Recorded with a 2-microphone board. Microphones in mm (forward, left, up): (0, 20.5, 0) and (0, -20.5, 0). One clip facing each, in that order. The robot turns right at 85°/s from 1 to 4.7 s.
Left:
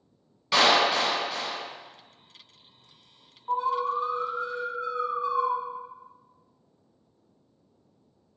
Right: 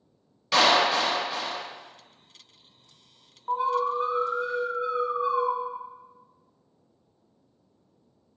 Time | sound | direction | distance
0.5 | a clap | 170° left | 1.3 m
3.5 | an alarm | 145° right | 1.0 m